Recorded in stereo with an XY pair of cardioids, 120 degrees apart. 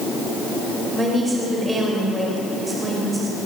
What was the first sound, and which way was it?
A woman speaking, 20° right.